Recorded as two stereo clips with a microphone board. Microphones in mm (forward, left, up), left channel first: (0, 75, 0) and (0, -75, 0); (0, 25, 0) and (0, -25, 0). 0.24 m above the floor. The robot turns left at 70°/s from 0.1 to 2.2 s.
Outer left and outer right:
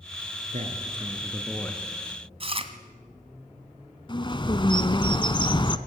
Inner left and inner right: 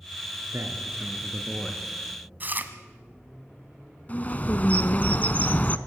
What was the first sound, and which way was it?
A man speaking, 115° right.